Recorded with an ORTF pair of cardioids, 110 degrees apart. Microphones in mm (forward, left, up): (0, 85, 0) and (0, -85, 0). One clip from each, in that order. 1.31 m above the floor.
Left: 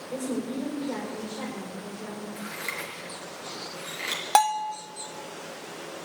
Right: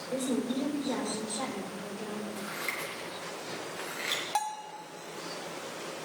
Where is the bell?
60° left, 0.9 m.